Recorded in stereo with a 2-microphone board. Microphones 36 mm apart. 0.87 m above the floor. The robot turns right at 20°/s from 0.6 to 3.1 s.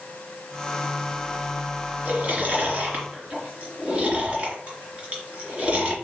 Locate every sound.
2.0 s chewing: 50° right (ahead or behind), 3 m; by 5.9 s 30° right (ahead or behind), 3 m